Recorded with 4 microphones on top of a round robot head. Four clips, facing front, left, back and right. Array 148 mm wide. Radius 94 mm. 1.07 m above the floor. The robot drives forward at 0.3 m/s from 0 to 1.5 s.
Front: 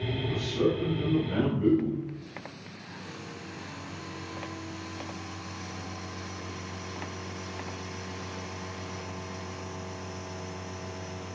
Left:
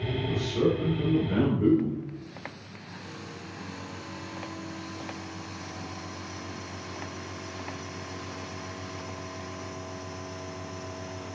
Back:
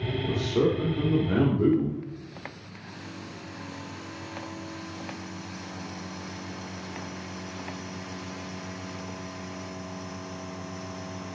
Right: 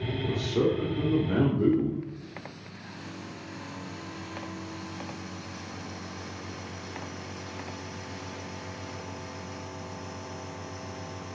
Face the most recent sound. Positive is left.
turn(degrees=-155)